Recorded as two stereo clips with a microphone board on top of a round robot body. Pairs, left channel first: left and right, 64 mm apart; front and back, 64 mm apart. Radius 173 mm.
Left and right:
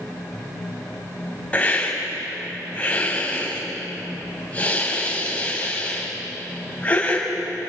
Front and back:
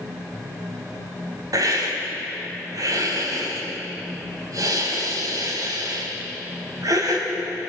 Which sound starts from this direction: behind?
A hiss, at 1.5 s.